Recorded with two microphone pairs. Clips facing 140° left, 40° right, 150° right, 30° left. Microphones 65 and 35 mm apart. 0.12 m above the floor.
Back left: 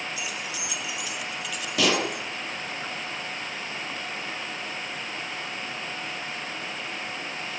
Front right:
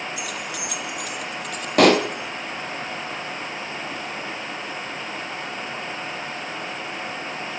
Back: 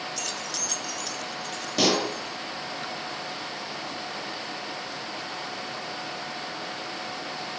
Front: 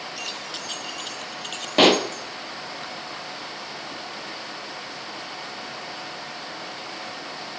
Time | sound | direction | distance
0.2 | keys jangling | 35° right | 1.8 m
1.8 | a pop | 15° right | 1.9 m